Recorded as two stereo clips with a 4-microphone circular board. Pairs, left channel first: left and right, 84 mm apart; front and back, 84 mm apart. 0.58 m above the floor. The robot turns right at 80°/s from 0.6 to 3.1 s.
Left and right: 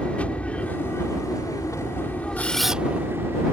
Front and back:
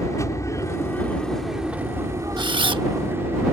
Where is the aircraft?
25° left; by 3.5 s 135° right.